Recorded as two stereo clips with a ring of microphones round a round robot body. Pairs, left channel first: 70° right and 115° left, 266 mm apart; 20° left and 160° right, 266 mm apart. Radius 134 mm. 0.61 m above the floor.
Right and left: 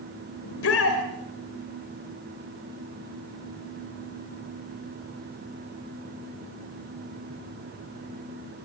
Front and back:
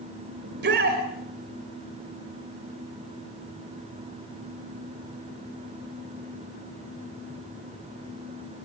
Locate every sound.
0.4 s a shout: 105° right, 2.5 m